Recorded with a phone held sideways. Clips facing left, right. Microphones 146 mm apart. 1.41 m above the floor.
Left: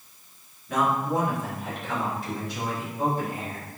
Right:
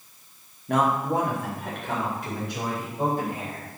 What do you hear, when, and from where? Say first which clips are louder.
0.7 s a man speaking: right 2 dB; 60° right (ahead or behind), 1.3 m